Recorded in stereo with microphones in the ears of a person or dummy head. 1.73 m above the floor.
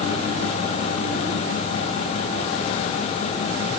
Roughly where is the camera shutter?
I don't hear a camera shutter.